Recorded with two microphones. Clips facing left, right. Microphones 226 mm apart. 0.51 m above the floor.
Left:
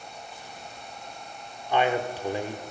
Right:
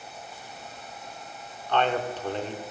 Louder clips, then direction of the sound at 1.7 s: Left 1 dB; 10° left (ahead or behind).